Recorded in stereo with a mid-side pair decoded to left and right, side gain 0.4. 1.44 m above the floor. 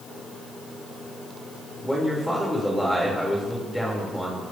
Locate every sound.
1.8 s a man speaking: 5° left, 5.5 m